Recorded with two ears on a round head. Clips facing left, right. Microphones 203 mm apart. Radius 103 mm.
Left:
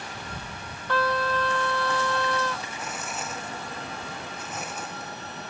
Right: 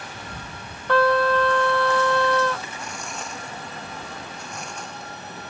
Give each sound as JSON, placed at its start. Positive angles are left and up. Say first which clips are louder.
{"t": 0.9, "sound": "a trumpet", "louder": "right 8 dB", "side_deg": -50}
{"t": 2.8, "sound": "tearing paper", "louder": "even", "side_deg": 5}